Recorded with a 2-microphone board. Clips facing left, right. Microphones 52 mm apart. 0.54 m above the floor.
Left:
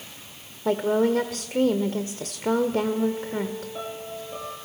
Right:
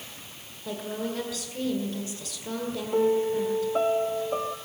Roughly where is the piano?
Right.